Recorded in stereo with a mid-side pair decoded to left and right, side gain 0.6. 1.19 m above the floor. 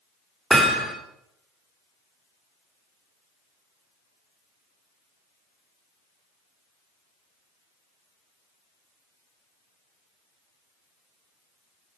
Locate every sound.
0.5 s hammering: 25° right, 1.9 m